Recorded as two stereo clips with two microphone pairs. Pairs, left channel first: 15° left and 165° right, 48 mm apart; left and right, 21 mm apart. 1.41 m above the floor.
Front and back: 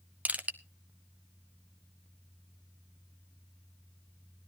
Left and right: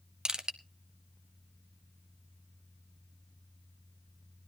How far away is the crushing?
About 0.9 m.